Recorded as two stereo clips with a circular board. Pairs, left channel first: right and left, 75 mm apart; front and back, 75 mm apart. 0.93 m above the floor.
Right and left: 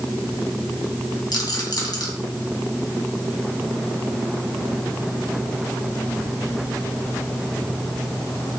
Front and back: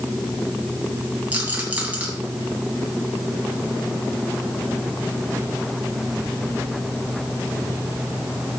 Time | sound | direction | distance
1.3 | a rattle | 105° right | 3 m